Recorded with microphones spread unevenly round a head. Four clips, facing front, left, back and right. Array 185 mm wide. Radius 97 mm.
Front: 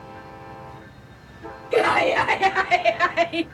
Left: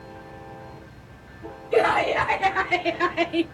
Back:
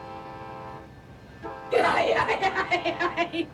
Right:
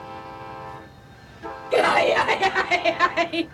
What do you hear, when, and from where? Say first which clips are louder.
1.7 s laughter: right 2 dB, front 3 dB; 90° right, 1.9 m; by 3.5 s 55° right, 1.4 m